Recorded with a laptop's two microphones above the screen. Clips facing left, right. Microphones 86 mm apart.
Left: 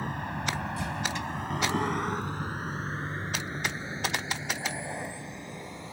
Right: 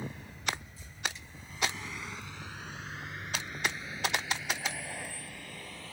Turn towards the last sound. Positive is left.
turn(degrees=20)  # may be behind; listen again after turning